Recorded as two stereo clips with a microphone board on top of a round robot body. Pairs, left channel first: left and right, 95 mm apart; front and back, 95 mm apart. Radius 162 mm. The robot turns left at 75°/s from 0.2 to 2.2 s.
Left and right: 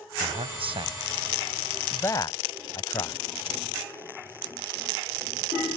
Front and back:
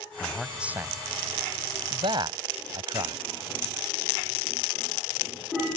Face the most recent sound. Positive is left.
turn(degrees=140)